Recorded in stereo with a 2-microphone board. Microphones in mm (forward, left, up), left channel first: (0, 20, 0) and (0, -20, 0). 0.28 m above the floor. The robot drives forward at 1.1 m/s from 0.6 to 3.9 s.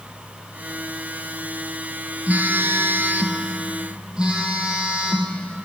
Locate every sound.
2.3 s a phone buzzing: 45° right (ahead or behind), 0.8 m; by 5.3 s 25° right (ahead or behind), 1.4 m